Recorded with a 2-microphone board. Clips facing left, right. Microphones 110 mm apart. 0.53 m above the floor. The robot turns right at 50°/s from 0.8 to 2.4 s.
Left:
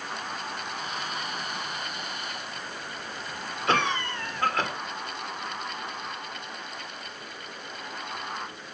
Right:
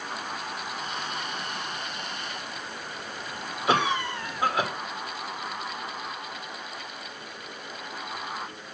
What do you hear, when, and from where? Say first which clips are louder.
3.7 s a cough: right 2 dB; 10° right (ahead or behind), 1.6 m